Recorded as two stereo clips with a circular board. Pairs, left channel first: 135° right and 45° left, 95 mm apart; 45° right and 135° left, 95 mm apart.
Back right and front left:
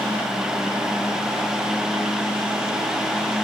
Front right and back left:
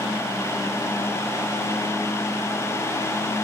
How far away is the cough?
I don't hear a cough.